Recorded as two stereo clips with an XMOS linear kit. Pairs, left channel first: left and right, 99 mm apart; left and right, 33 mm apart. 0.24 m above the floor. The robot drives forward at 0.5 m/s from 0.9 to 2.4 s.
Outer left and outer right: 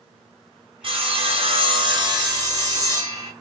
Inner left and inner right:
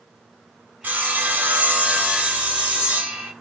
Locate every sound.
0.8 s sawing: 65° right (ahead or behind), 0.6 m; by 3.3 s 40° right (ahead or behind), 0.8 m